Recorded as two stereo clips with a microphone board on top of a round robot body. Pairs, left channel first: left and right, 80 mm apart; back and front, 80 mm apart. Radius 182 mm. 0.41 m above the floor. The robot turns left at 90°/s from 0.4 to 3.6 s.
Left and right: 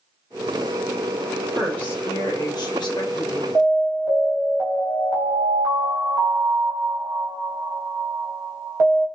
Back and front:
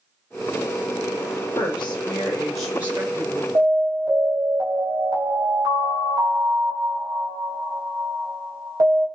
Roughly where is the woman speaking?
Behind.